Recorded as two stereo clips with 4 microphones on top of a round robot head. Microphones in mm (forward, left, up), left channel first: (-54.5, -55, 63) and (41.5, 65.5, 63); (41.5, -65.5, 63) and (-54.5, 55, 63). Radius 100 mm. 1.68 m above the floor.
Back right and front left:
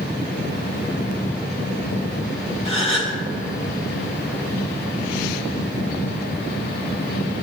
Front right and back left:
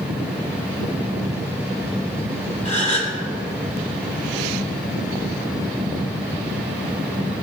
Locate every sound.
2.6 s a gasp: straight behind, 4 m